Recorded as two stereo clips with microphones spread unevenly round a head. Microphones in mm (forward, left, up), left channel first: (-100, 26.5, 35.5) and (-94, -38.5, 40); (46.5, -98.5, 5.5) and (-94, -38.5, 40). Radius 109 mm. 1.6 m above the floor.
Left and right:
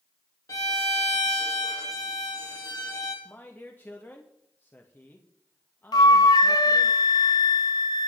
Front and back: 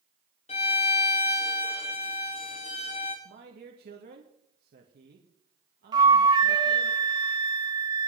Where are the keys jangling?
I don't hear keys jangling.